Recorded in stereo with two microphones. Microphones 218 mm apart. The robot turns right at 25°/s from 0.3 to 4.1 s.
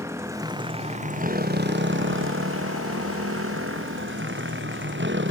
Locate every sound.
0.0 s a motorcycle: 15° right (ahead or behind); by 5.3 s 60° right (ahead or behind)